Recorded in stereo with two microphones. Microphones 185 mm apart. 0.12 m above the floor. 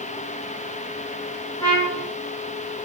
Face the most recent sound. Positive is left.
turn(degrees=15)  # may be behind; listen again after turning